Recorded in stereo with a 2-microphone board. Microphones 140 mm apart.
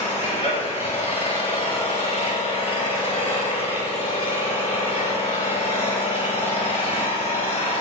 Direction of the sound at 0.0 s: 45° left (ahead or behind).